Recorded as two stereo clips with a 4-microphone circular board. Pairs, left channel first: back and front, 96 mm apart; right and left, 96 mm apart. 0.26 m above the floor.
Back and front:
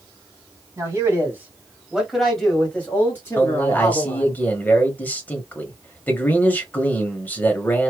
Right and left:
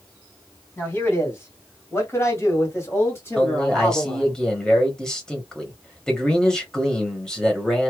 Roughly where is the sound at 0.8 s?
Ahead right.